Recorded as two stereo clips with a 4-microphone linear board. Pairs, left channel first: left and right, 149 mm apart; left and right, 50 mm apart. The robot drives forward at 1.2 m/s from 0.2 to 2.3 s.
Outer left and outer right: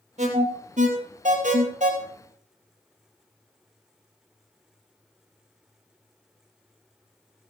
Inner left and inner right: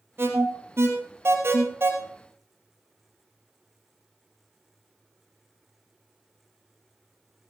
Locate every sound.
0.2 s an alarm: 50° right (ahead or behind), 3 m; by 1.9 s 55° right (ahead or behind), 2.5 m